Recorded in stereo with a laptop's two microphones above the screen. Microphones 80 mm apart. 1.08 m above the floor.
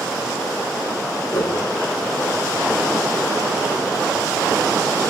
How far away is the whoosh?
About 3.5 m.